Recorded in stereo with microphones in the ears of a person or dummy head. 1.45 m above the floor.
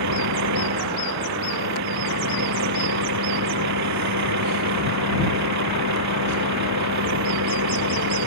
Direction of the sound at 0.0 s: 70° right (ahead or behind).